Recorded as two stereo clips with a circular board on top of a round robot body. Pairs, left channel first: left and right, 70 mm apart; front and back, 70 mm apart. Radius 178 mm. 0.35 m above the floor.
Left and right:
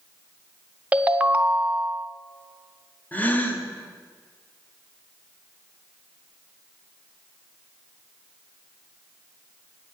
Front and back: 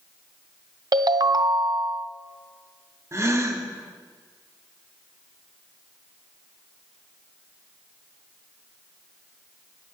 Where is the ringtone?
160° right, 0.9 m.